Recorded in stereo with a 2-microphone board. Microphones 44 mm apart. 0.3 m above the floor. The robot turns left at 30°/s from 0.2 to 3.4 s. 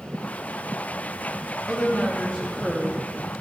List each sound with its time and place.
1.7 s a woman speaking: 25° left (ahead or behind), 1.3 m; by 3.3 s 5° left (ahead or behind), 1.3 m